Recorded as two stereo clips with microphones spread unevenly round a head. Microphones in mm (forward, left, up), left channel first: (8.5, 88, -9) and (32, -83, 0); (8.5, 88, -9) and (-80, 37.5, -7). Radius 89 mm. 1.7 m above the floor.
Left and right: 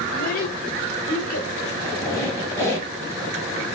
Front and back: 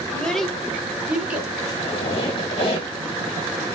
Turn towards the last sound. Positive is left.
turn(degrees=25)